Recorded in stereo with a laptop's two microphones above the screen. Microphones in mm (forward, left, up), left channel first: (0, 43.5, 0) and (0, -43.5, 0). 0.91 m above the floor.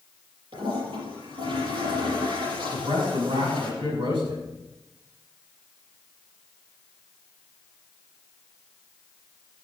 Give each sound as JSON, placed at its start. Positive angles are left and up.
{"t": 0.5, "sound": "a toilet flushing", "side_deg": -85, "distance_m": 6.0}
{"t": 2.7, "sound": "a man speaking", "side_deg": -85, "distance_m": 6.0}